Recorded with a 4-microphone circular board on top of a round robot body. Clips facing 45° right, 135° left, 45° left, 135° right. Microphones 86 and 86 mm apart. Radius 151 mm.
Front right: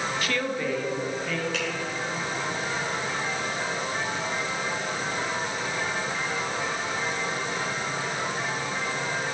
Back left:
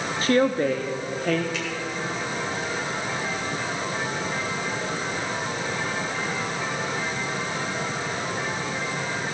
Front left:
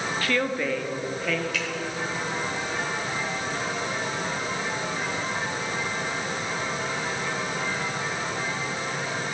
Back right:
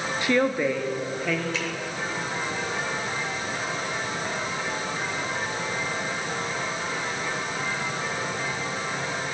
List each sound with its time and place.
0.2 s a woman speaking: 165° left, 0.9 m; by 1.4 s 140° left, 1.4 m
1.5 s a finger snap: 75° right, 5.5 m